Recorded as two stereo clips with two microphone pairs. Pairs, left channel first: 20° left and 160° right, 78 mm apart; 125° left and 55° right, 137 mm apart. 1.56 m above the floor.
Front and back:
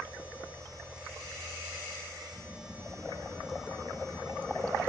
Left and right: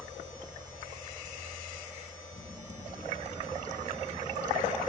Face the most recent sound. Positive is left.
turn(degrees=60)